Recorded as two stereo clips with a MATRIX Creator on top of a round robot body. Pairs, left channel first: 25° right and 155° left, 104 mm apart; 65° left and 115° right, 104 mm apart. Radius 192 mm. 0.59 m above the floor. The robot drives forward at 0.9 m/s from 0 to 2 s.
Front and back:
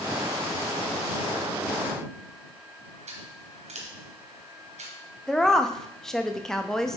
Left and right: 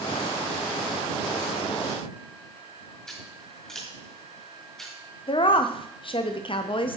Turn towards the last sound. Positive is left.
turn(degrees=60)